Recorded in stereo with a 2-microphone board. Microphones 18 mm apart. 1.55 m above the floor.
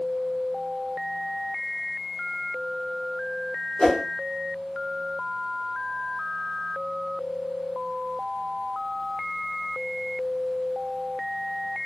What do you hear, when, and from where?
3.8 s a whoosh: 30° left (ahead or behind), 0.9 m